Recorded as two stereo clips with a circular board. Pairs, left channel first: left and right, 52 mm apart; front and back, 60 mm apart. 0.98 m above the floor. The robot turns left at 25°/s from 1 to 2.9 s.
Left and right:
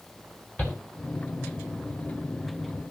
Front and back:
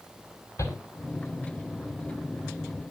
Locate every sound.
0.6 s a shout: 25° left, 5 m